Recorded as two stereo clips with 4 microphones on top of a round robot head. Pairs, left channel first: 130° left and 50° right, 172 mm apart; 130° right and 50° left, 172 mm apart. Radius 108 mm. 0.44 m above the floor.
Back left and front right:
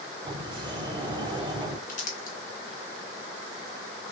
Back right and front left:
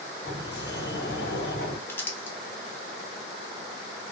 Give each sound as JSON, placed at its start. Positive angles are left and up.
{"t": 0.2, "sound": "a sliding door", "azimuth_deg": -110, "distance_m": 0.8}
{"t": 1.9, "sound": "crumpling", "azimuth_deg": 150, "distance_m": 0.9}